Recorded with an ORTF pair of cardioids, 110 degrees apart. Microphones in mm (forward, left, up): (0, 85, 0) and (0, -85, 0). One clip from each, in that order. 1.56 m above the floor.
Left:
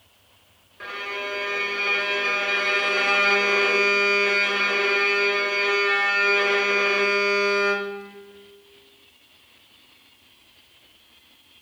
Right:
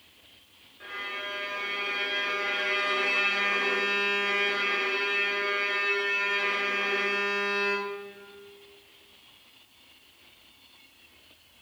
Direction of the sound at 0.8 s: 55° left.